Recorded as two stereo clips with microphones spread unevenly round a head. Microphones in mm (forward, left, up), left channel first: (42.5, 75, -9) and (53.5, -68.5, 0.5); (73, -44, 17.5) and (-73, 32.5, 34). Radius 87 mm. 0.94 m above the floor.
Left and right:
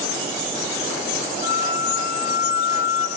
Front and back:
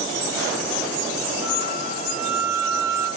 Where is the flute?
85° left, 5.5 m.